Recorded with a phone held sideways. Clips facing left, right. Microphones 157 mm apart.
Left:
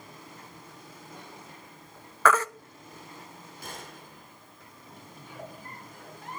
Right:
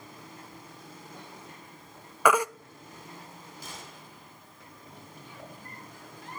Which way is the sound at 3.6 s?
60° left (ahead or behind).